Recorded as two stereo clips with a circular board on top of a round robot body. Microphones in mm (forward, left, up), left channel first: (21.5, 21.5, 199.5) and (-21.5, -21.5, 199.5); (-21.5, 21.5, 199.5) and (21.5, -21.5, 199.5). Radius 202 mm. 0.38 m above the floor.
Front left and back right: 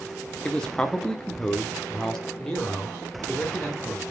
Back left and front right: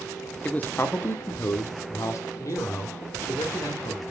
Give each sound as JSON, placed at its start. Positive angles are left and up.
{"t": 0.5, "sound": "a man speaking", "azimuth_deg": 105, "distance_m": 1.2}